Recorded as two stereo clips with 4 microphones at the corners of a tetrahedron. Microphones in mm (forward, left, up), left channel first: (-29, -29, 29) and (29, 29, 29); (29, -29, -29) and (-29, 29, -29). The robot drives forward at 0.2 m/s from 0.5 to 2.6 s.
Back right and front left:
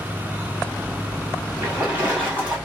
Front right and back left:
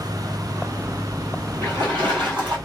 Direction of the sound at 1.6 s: 110° left.